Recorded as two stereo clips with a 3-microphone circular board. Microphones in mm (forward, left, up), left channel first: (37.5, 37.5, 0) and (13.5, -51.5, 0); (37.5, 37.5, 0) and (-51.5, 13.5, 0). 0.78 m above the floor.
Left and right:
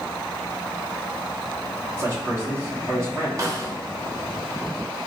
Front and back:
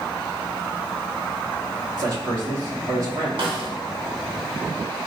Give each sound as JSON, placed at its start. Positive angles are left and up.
{"t": 2.0, "sound": "a man speaking", "azimuth_deg": -160, "distance_m": 1.8}
{"t": 3.4, "sound": "a snare drum", "azimuth_deg": -155, "distance_m": 0.8}